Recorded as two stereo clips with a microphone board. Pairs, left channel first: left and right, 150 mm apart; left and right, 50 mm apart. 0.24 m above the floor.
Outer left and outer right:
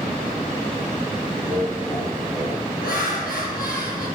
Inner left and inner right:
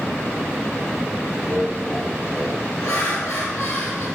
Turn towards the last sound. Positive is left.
turn(degrees=70)  # may be behind; listen again after turning